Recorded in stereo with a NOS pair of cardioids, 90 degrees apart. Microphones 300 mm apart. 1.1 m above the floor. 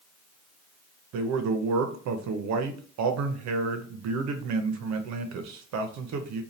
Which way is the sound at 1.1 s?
65° right.